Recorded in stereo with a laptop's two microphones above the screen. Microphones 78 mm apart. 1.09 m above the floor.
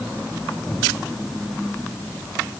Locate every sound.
Only background noise.